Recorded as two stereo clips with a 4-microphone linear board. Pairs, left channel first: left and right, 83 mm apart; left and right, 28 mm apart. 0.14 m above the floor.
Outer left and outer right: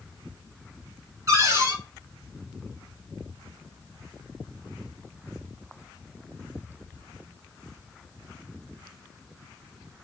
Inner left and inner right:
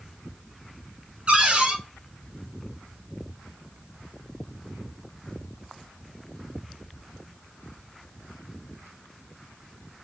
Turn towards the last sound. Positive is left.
turn(degrees=-40)  # may be behind; listen again after turning